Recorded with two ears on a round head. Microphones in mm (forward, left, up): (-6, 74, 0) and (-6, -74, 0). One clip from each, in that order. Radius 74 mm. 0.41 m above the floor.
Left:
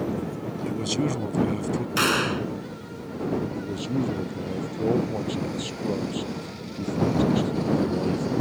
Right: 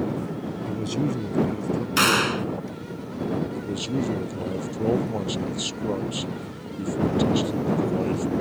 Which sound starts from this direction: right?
A man speaking, at 3.5 s.